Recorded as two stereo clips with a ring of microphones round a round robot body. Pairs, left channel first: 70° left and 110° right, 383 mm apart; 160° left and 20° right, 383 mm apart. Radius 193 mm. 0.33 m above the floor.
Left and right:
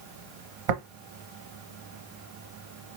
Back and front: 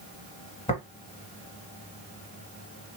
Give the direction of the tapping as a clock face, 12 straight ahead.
4 o'clock.